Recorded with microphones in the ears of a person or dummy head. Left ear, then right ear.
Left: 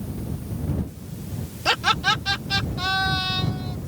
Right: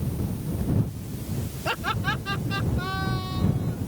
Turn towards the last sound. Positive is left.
turn(degrees=45)  # may be behind; listen again after turning